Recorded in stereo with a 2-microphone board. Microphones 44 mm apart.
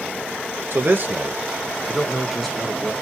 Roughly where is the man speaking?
Right.